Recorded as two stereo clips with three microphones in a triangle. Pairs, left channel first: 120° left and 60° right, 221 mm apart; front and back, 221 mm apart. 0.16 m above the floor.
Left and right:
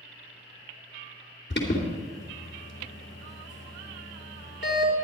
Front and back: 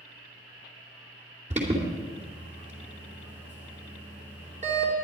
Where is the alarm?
130° left, 3 m.